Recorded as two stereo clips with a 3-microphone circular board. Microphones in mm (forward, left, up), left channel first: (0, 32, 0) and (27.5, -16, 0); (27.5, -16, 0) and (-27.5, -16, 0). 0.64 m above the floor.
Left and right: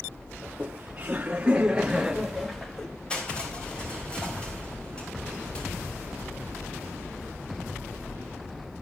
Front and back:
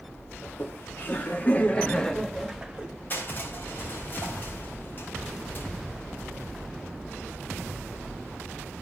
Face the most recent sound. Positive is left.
turn(degrees=55)